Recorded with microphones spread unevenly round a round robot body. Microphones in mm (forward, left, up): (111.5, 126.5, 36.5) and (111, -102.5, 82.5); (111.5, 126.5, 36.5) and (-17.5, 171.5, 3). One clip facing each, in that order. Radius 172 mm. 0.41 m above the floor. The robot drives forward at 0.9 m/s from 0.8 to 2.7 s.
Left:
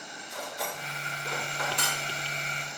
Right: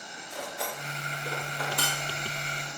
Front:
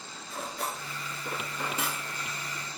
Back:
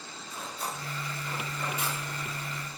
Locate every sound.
0.3 s cutlery clinking: straight ahead, 3.5 m